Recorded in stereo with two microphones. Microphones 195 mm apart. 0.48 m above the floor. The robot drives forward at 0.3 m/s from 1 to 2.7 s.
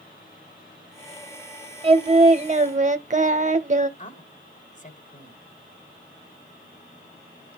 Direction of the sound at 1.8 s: 30° right (ahead or behind).